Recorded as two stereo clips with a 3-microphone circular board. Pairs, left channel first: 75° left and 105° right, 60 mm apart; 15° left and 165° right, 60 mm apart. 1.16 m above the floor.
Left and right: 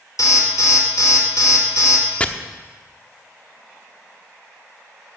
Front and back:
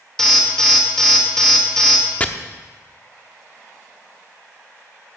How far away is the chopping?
About 0.7 m.